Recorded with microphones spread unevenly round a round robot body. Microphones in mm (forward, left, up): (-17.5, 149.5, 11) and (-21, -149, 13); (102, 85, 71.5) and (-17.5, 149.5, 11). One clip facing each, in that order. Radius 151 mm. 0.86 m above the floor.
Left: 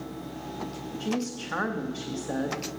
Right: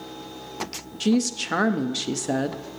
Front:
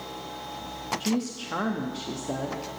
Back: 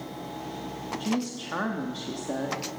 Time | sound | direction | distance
1.0 | a woman speaking | 120° right | 0.9 m